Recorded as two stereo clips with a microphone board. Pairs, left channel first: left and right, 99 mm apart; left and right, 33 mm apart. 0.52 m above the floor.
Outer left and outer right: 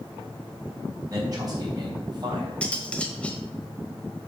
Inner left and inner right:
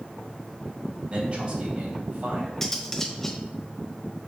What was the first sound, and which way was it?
A man speaking, 35° right (ahead or behind).